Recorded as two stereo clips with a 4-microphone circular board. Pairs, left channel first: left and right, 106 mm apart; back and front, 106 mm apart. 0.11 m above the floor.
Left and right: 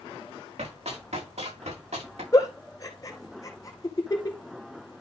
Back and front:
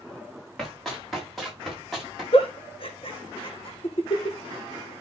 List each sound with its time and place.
0.6 s running footsteps: 95° right, 6.5 m; by 2.2 s 90° right, 7 m
2.3 s a giggle: 150° left, 1.8 m